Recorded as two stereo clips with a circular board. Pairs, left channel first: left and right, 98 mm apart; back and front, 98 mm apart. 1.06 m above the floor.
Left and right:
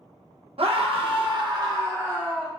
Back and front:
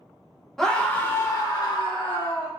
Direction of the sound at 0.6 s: 95° right.